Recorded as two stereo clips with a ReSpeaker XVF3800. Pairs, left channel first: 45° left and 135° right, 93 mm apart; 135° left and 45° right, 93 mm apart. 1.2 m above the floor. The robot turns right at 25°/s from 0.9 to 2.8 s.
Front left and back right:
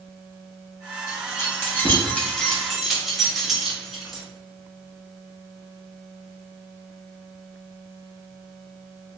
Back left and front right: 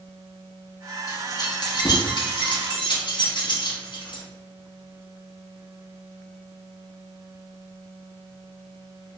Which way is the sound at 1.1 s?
95° left.